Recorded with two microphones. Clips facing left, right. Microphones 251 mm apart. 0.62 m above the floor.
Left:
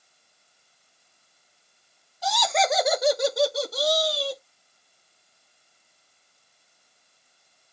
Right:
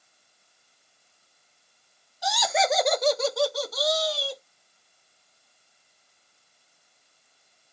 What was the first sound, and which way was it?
Laughter, 15° right (ahead or behind).